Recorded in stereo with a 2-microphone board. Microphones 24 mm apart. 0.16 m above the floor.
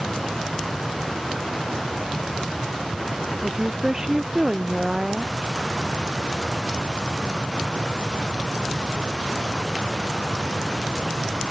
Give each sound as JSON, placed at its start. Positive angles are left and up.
{"t": 3.4, "sound": "a woman speaking", "side_deg": -25}